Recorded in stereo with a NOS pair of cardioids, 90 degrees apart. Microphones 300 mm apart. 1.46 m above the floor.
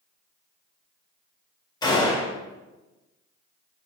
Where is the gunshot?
15° left, 1.5 m.